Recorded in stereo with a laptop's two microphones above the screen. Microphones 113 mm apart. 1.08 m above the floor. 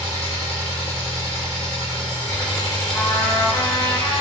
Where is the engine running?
85° right, 2 m.